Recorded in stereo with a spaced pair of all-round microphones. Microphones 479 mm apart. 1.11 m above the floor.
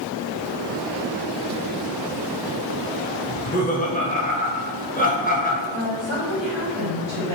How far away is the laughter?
About 0.7 m.